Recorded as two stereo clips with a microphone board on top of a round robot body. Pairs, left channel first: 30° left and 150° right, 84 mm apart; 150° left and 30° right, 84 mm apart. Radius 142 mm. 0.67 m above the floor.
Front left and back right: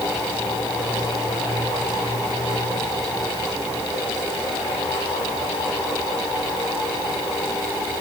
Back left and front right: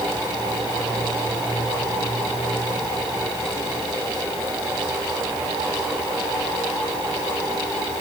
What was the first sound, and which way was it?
Only background noise.